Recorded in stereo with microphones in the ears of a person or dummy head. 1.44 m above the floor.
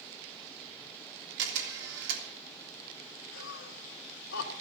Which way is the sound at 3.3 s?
75° left (ahead or behind).